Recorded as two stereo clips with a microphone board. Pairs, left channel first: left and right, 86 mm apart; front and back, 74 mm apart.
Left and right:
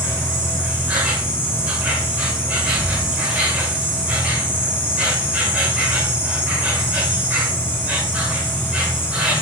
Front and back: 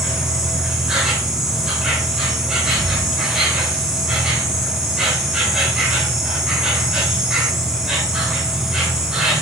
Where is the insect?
120° right, 1.6 m.